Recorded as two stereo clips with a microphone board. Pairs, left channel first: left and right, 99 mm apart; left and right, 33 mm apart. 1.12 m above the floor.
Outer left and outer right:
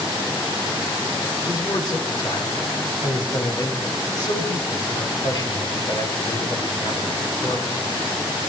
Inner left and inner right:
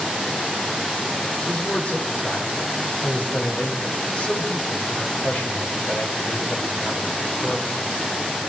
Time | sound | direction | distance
1.5 | a man speaking | 40° left (ahead or behind) | 4 m